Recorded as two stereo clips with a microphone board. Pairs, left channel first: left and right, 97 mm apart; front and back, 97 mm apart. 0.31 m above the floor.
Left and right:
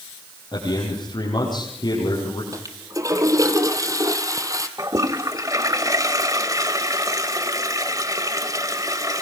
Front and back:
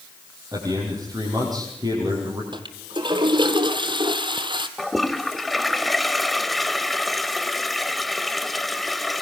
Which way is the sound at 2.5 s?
145° right.